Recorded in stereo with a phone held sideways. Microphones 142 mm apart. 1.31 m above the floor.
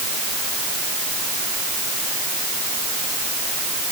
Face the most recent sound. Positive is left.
No sound to turn to.